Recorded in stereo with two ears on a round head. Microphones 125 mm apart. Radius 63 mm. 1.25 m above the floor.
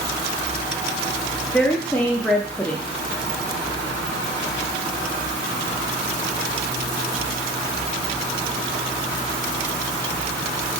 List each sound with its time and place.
1.5 s a woman speaking: 10° left (ahead or behind), 0.7 m